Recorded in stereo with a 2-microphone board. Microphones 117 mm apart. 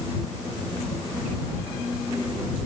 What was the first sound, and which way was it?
Only background noise.